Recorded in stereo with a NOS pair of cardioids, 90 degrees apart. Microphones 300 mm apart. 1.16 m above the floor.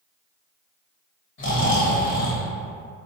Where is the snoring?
40° left, 0.9 m.